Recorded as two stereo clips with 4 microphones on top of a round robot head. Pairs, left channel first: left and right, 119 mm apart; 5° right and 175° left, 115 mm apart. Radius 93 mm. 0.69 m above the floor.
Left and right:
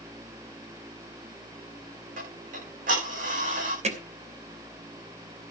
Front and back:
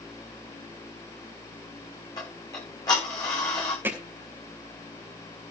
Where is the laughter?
No laughter in this recording.